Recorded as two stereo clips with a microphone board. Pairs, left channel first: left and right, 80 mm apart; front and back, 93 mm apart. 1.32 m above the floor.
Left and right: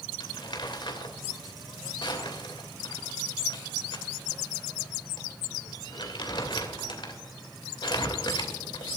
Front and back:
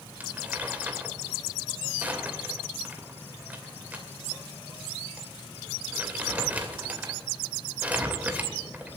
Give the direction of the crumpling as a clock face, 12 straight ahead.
8 o'clock.